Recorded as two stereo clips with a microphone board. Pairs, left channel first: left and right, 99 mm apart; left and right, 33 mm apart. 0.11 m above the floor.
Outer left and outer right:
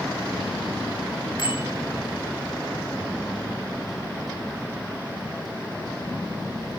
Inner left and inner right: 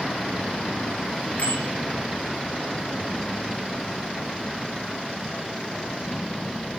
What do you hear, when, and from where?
1.4 s a bicycle bell: 45° left (ahead or behind), 9.5 m